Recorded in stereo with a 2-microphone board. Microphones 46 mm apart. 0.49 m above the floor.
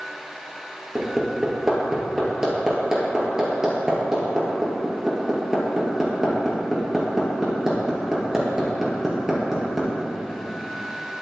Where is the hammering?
15° right (ahead or behind), 4 m.